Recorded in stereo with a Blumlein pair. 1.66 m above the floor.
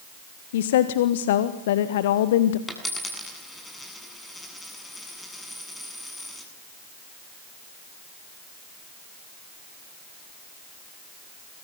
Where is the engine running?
I don't hear an engine running.